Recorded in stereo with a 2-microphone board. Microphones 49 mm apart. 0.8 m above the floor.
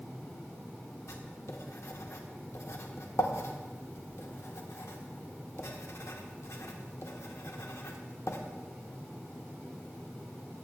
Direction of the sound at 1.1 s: 75° left (ahead or behind).